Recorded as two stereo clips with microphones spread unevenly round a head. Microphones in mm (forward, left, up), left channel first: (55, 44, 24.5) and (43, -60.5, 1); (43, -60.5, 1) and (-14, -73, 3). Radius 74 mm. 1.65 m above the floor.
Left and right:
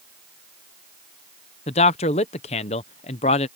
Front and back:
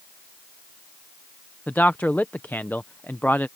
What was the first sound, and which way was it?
A man speaking, 90° left.